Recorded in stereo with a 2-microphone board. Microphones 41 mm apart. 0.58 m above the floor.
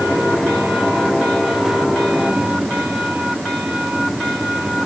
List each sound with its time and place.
Only background noise.